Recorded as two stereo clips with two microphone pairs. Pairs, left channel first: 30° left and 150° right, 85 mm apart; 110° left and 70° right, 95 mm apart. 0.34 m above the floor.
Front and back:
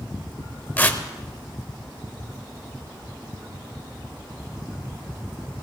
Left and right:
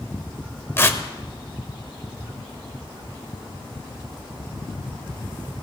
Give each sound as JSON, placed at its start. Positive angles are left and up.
{"t": 0.8, "sound": "tearing paper", "azimuth_deg": 80, "distance_m": 1.0}